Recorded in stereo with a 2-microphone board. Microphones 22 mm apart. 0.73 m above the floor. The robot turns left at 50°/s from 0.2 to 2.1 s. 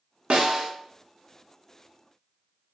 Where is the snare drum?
60° right (ahead or behind), 0.9 m; by 0.7 s 50° right (ahead or behind), 0.9 m.